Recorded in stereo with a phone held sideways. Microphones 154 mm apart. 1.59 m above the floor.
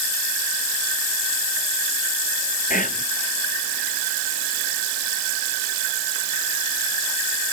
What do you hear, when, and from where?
2.7 s whispering: 60° left (ahead or behind), 0.6 m